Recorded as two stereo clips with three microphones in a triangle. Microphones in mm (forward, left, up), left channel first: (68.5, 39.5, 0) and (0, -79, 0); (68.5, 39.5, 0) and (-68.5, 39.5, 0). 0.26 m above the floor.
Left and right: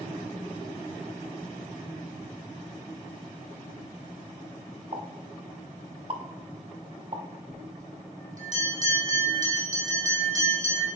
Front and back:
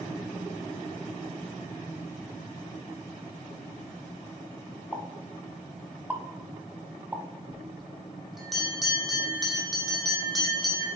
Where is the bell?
90° right, 1.9 m.